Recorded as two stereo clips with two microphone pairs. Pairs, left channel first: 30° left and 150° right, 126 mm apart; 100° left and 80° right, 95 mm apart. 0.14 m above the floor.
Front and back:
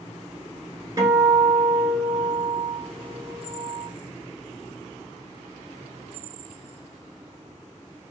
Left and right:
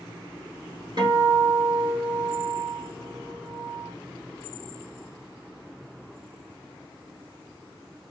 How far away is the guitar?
About 1.1 m.